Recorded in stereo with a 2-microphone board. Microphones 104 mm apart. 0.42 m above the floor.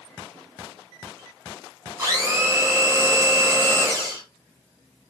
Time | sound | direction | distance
2.0 | a blender | 30° right (ahead or behind) | 2.0 m